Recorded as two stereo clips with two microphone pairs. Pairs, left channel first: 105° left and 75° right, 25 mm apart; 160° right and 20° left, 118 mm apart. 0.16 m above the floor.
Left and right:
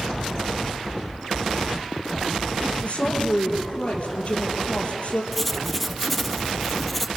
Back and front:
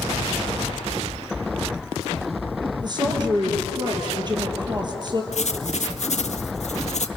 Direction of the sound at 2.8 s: 70° left.